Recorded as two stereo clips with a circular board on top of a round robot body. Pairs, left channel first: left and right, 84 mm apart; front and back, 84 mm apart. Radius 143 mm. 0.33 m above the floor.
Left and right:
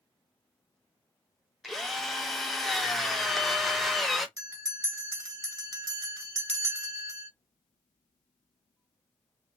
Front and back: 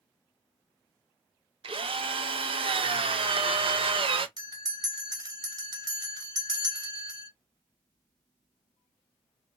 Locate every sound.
1.6 s a drill: straight behind, 0.7 m
4.4 s a bell: 140° right, 1.1 m